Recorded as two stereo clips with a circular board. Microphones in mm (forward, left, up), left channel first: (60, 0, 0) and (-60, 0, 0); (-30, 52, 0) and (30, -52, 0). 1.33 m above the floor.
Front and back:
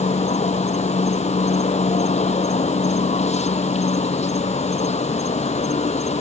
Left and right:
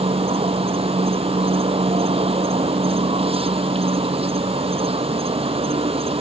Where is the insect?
25° right.